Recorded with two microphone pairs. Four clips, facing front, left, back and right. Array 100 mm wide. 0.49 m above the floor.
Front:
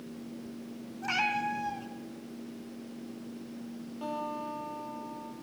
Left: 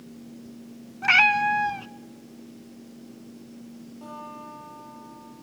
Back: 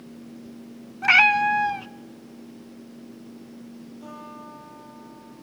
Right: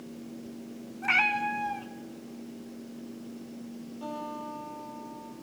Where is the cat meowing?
145° left, 0.6 m.